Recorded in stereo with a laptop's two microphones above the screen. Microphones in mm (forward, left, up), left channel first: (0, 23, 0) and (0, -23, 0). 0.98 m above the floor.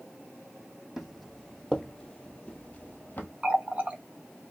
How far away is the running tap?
About 0.8 m.